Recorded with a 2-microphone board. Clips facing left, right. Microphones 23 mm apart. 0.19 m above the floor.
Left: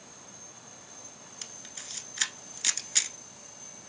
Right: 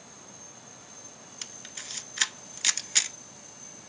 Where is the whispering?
No whispering in this recording.